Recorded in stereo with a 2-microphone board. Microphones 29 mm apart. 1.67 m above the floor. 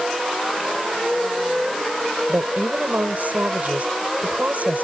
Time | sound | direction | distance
2.3 | a woman speaking | 60° right (ahead or behind) | ?